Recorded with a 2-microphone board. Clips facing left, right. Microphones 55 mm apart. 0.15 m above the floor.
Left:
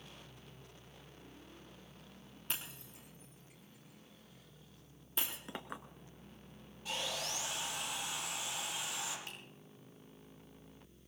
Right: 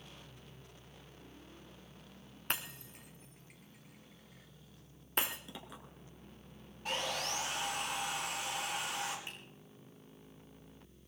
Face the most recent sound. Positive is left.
turn(degrees=-25)  # may be behind; listen again after turning